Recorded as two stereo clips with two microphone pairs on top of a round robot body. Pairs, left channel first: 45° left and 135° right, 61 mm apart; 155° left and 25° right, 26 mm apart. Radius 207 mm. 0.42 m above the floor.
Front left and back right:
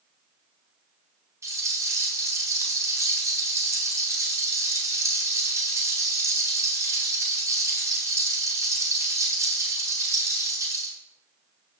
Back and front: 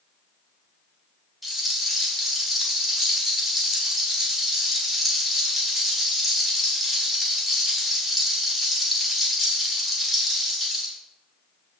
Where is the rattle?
115° right, 4.5 m.